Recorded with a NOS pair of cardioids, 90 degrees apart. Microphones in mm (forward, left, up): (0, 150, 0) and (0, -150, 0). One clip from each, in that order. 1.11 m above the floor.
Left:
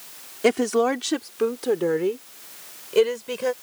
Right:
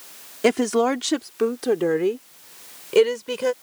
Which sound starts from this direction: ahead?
A woman speaking, at 0.4 s.